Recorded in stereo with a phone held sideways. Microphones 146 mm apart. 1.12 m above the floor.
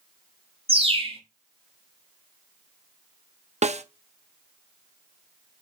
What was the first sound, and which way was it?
A bird, 40° right (ahead or behind).